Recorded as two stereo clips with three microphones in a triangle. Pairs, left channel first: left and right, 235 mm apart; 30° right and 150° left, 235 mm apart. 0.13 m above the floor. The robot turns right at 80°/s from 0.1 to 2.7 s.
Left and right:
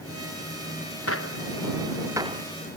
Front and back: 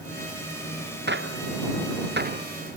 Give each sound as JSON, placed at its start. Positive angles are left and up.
{"t": 1.1, "sound": "a gunshot", "azimuth_deg": 105}